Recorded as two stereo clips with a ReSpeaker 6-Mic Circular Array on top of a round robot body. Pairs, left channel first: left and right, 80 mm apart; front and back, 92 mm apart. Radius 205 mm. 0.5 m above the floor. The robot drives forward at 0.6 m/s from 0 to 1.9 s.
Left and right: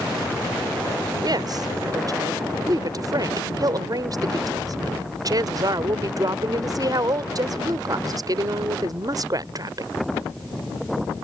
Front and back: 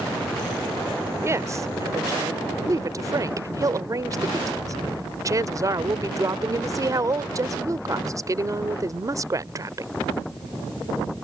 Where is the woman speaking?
120° right; by 9.9 s 130° right.